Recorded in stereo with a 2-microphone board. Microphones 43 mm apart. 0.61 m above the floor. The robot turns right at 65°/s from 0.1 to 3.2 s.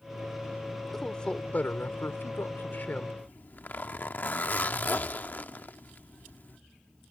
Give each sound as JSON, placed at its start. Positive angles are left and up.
{"t": 0.9, "sound": "a man speaking", "azimuth_deg": 5}
{"t": 3.2, "sound": "a zipper", "side_deg": 45}